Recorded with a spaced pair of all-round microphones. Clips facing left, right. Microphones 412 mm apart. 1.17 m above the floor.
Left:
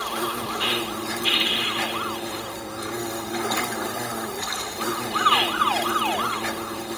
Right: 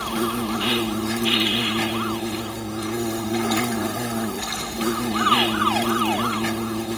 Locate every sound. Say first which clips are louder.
0.0 s an insect: right 6 dB; 45° right (ahead or behind), 0.7 m